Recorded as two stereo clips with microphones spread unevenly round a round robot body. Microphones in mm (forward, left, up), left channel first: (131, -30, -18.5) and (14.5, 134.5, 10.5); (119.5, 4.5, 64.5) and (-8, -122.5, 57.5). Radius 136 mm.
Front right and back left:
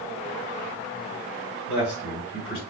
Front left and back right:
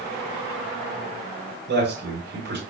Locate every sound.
1.7 s a man speaking: 140° right, 2.5 m